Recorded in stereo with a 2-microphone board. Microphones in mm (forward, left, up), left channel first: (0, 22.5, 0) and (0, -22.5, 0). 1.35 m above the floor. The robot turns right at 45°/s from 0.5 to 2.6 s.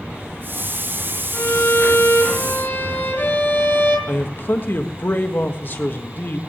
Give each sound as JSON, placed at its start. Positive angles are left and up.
{"t": 1.3, "sound": "a violin", "azimuth_deg": 70, "distance_m": 4.5}
{"t": 4.1, "sound": "a man speaking", "side_deg": 50, "distance_m": 1.6}